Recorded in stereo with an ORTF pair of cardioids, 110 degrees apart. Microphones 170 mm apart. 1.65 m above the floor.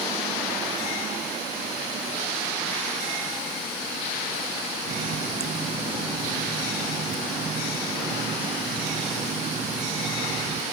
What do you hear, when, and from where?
4.9 s a running tap: 40° right